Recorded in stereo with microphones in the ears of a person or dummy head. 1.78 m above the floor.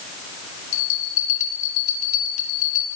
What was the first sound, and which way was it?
A bell, 55° left (ahead or behind).